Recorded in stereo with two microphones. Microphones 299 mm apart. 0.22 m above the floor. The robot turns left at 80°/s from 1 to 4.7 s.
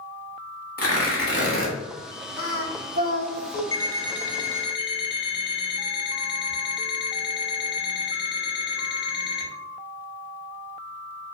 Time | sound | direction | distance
0.8 | tearing paper | 85° left | 0.8 m
2.4 | singing | 135° left | 1.1 m
3.7 | an alarm clock | 80° left | 0.6 m